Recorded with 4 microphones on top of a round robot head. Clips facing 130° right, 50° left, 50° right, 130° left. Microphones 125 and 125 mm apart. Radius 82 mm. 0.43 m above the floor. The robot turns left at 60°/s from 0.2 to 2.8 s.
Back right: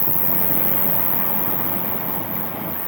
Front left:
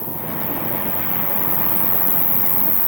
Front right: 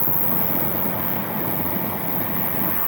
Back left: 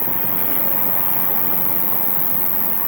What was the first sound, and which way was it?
An insect, 145° right.